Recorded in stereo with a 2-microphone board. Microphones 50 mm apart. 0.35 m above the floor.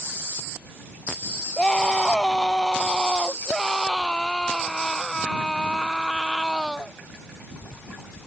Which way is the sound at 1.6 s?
10° left (ahead or behind).